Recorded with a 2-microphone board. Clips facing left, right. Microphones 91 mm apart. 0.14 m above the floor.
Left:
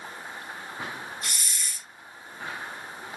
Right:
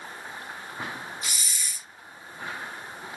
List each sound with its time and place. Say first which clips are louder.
1.2 s a hiss: even; 5° right (ahead or behind), 0.6 m